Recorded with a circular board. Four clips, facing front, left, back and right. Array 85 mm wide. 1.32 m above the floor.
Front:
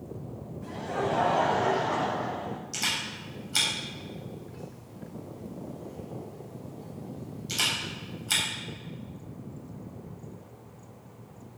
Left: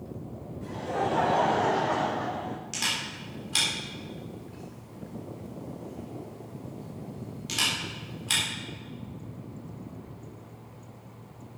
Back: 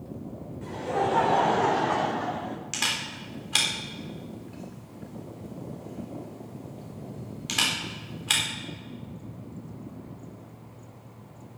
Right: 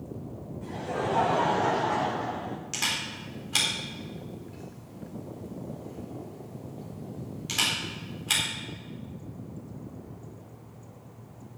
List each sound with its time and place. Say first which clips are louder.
0.6 s laughter: left 2 dB, back 4 dB; 175° left, 5 m; by 2.6 s 160° left, 3 m
2.7 s a camera shutter: even, back 2 dB; 170° right, 4 m